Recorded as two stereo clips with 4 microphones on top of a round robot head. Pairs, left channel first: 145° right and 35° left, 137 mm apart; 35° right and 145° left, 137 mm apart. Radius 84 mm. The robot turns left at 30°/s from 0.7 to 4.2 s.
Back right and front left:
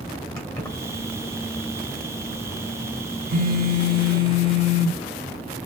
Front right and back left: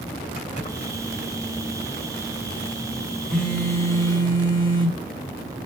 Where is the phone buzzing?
55° left, 1.2 m; by 5.7 s 25° left, 1.2 m.